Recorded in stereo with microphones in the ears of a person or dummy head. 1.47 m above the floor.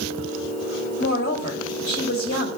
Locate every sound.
1.0 s a woman speaking: 60° left (ahead or behind), 3 m